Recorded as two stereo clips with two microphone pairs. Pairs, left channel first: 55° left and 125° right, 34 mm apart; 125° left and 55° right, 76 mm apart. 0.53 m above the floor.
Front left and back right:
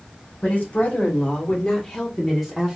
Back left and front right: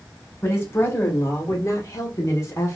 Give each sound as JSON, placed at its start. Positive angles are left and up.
{"t": 0.4, "sound": "a woman speaking", "azimuth_deg": 75, "distance_m": 1.4}